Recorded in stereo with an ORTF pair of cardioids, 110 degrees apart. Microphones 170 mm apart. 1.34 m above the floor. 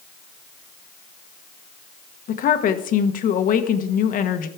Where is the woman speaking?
55° left, 1.3 m.